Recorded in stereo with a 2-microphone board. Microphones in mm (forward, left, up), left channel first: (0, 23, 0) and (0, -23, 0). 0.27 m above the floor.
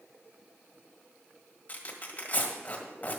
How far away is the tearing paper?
About 1.7 m.